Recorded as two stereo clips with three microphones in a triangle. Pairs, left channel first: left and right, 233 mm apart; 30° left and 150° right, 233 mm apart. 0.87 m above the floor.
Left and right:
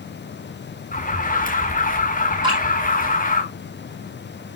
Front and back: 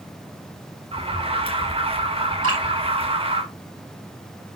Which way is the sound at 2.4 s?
160° right.